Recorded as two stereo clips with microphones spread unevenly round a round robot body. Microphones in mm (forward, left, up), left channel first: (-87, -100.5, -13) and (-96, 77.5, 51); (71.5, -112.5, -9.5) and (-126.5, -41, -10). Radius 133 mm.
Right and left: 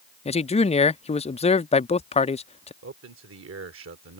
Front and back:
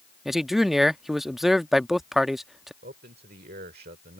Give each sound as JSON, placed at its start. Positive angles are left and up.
{"t": 0.2, "sound": "a man speaking", "azimuth_deg": -110}
{"t": 2.8, "sound": "a man speaking", "azimuth_deg": 105}